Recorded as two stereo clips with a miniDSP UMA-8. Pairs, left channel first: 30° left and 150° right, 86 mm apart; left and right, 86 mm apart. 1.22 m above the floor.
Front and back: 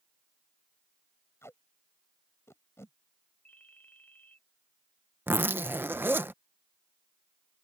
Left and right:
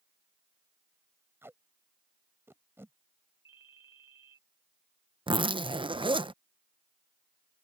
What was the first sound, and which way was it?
Tape being pulled, 30° right.